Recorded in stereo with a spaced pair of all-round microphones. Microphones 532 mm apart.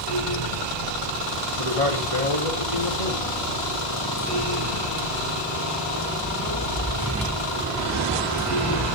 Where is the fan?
85° left, 7.5 m.